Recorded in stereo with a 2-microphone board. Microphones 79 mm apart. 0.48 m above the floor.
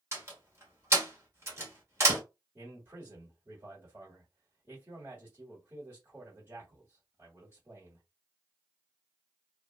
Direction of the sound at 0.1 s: 35° right (ahead or behind).